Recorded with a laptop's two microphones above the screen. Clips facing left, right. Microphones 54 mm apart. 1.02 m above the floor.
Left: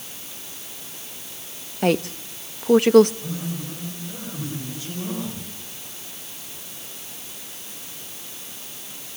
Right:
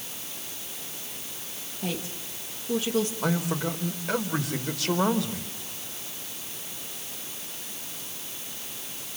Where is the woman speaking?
65° left (ahead or behind), 1.1 m.